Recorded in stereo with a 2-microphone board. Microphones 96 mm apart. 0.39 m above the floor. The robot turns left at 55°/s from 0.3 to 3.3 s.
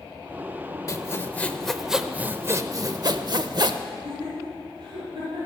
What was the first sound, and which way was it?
Sawing, 50° left.